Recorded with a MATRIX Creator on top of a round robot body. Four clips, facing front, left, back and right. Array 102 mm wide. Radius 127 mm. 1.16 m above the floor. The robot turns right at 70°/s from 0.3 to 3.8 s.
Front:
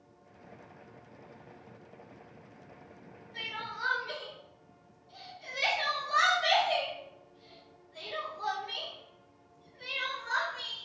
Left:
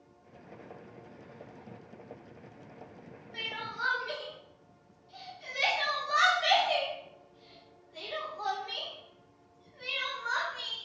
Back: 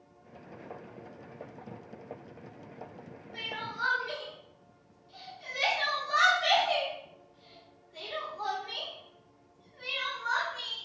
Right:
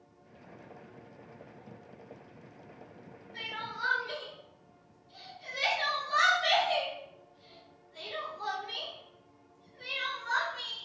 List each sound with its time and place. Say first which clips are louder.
3.3 s crying: left 1 dB, back 2 dB; 105° left, 0.6 m; by 10.9 s 135° left, 0.6 m